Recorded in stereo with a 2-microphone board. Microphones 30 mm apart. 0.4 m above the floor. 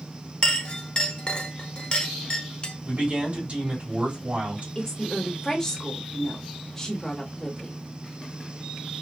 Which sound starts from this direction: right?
A man speaking, at 2.9 s.